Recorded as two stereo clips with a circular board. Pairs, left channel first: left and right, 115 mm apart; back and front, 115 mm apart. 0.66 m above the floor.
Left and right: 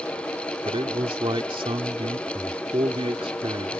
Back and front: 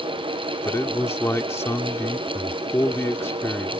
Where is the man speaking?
115° right.